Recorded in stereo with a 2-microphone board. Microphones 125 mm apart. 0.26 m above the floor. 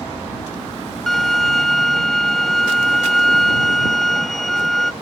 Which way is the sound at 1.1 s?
5° left (ahead or behind).